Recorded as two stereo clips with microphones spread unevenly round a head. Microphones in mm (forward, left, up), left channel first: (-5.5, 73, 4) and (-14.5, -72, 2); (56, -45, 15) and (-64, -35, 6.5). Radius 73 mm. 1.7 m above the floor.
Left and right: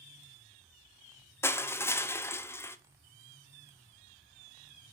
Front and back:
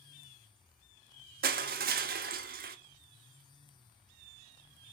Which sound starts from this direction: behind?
Crushing, at 1.4 s.